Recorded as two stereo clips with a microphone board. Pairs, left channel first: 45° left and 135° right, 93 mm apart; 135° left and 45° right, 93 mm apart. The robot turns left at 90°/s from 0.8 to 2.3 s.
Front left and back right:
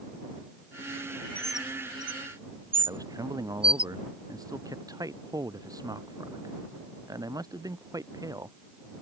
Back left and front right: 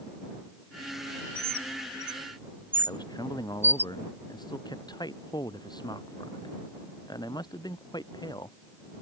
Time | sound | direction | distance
1.4 | a bird | 30° right | ?
2.9 | a man speaking | 175° left | ?